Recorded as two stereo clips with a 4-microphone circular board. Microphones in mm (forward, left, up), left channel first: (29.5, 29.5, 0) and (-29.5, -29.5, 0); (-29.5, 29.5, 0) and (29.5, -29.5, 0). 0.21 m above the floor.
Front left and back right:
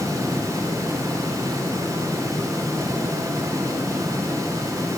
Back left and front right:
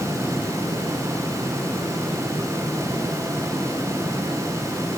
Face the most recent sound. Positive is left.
No sound to turn to.